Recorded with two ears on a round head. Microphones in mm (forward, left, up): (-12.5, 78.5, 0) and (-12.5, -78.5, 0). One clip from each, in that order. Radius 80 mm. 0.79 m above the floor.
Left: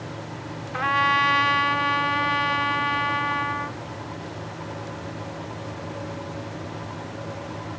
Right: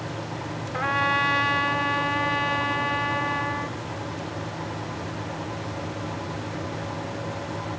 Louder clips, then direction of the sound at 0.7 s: Left 3 dB; 20° left (ahead or behind).